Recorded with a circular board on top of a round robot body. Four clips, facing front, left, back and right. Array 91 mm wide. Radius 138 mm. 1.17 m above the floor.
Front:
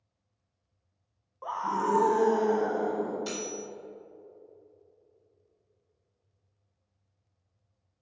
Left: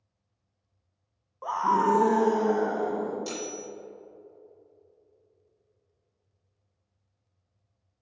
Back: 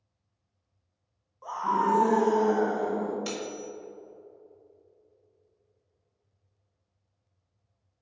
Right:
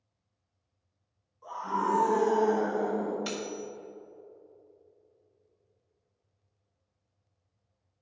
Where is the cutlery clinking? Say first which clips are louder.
Even, back 1 dB; 125° right, 1.9 m.